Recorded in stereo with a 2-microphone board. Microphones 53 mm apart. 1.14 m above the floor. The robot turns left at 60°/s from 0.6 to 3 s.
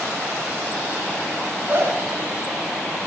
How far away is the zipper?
About 1.0 m.